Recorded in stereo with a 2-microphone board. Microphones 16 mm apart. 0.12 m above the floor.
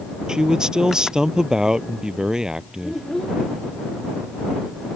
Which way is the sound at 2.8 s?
35° left (ahead or behind).